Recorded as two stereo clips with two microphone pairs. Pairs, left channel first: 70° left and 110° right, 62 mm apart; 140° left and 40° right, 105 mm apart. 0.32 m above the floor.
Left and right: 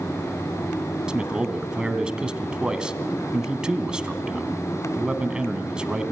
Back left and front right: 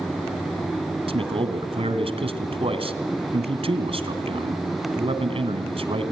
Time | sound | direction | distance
1.1 | a man speaking | 35° right | 2.5 m